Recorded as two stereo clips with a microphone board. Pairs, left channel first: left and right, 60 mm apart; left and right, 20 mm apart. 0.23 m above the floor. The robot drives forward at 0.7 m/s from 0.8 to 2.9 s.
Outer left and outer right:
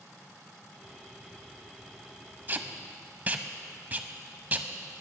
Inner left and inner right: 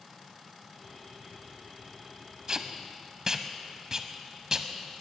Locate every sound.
2.5 s tape being pulled: 30° right (ahead or behind), 0.7 m